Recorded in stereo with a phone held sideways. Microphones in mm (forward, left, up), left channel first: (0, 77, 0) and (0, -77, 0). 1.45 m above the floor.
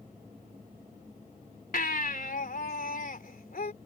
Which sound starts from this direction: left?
A baby crying, at 1.7 s.